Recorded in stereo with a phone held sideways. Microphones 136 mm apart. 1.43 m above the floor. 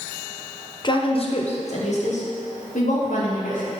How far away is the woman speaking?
About 1.0 m.